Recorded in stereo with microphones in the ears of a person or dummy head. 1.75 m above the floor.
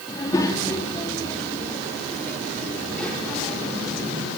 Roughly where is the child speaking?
Left.